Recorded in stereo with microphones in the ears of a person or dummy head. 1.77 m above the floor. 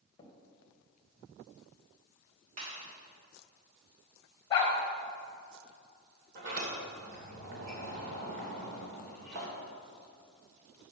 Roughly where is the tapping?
Left.